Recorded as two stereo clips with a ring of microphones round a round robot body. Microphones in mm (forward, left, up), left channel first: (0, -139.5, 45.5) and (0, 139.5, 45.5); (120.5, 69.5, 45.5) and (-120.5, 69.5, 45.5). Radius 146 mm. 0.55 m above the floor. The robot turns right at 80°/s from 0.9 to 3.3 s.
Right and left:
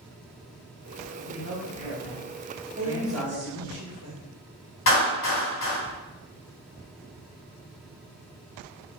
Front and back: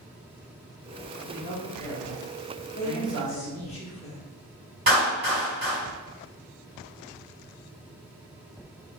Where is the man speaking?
30° left, 1.1 m; by 3.8 s 165° right, 1.1 m.